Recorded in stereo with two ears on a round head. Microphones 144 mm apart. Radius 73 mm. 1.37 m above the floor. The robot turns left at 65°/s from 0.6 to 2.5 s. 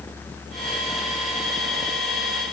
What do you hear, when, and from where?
Only background noise.